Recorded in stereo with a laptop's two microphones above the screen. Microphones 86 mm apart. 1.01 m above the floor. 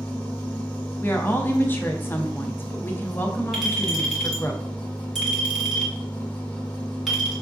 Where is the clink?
5° right (ahead or behind), 2.5 m.